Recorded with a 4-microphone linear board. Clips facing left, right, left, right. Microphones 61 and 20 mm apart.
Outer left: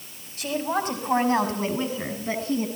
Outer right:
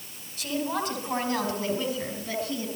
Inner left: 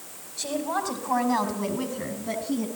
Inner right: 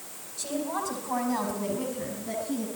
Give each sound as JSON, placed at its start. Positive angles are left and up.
{"t": 0.4, "sound": "a woman speaking", "side_deg": 45, "distance_m": 5.0}